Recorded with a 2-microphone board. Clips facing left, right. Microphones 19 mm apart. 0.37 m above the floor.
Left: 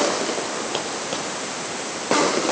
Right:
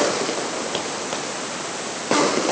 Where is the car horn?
I don't hear a car horn.